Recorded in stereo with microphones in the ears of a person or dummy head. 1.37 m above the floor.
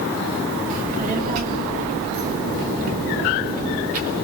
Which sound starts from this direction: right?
A child speaking, at 0.7 s.